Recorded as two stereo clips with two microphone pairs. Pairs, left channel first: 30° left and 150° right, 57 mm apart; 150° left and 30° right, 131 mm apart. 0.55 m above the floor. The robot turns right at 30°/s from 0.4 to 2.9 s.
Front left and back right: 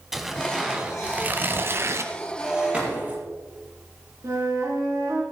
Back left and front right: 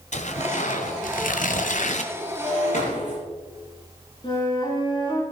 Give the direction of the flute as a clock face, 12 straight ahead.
5 o'clock.